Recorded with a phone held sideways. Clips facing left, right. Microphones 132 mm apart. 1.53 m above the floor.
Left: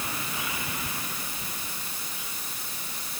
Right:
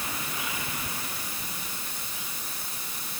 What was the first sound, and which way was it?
Only background noise.